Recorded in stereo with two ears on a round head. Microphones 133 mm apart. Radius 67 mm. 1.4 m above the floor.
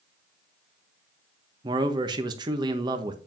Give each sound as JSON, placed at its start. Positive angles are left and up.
{"t": 1.6, "sound": "a man speaking", "side_deg": -30, "distance_m": 1.3}